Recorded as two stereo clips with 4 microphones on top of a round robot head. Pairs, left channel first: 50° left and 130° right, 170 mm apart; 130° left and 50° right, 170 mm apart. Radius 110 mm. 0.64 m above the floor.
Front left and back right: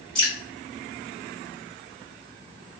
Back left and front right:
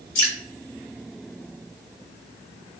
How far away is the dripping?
About 1.4 m.